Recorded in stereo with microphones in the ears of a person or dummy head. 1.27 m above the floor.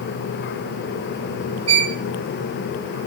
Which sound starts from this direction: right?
A violin, at 1.7 s.